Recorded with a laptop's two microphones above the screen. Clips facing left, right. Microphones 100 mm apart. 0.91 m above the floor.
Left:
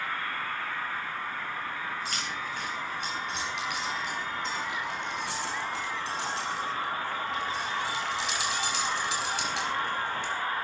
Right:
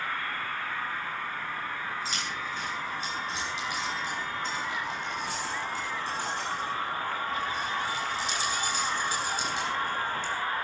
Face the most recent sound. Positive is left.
turn(degrees=65)  # may be behind; listen again after turning